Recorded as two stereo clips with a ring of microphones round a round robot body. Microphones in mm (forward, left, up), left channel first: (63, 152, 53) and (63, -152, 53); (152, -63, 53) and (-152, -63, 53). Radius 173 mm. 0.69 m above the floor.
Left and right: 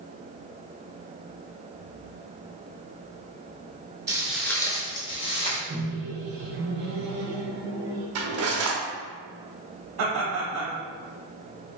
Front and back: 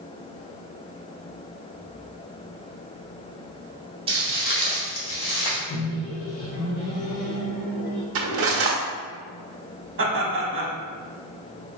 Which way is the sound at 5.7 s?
40° right.